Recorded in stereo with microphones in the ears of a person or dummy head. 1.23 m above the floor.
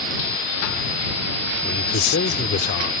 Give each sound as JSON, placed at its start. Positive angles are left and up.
{"t": 1.6, "sound": "a man speaking", "side_deg": 65}